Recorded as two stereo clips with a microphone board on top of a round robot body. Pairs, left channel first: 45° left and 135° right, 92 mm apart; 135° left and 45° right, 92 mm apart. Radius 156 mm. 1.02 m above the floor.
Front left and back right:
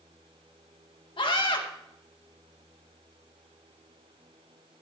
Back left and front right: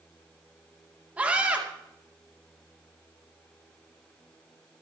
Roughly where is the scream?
Ahead left.